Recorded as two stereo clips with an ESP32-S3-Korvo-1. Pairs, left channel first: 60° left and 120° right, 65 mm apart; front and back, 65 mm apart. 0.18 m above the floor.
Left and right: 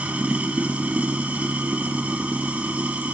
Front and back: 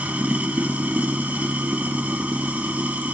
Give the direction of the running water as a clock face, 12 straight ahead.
5 o'clock.